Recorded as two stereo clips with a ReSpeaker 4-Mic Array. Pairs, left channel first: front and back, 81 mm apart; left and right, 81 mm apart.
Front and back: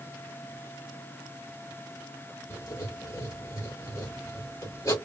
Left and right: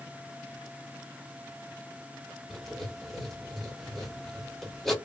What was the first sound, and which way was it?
Writing, 5° left.